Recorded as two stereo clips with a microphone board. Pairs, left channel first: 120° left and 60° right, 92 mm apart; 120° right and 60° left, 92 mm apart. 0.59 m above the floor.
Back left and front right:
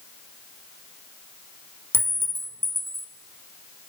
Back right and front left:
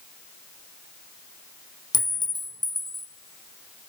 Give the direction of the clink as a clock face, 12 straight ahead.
4 o'clock.